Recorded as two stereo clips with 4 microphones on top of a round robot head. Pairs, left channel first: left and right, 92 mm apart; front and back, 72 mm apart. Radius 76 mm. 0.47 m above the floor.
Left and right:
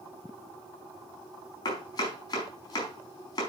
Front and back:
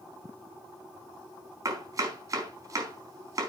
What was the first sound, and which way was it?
Chopping, 145° left.